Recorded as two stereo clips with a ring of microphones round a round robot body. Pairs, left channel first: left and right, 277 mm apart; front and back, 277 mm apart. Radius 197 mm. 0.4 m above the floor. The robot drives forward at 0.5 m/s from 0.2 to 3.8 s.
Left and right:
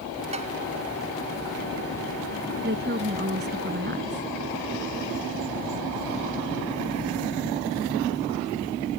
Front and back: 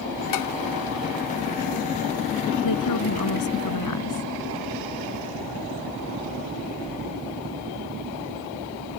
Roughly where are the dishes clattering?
Ahead.